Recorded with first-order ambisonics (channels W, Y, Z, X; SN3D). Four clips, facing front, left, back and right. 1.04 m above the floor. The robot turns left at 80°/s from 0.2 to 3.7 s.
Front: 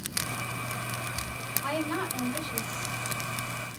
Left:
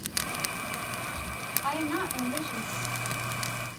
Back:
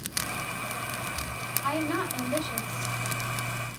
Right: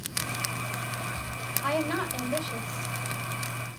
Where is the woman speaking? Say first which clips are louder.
Right 2 dB, back 2 dB; 80° right, 3.5 m; by 2.9 s straight behind, 3.5 m.